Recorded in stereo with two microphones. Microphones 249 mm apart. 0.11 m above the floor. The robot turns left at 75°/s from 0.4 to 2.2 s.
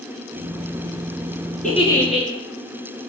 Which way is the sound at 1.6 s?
35° left.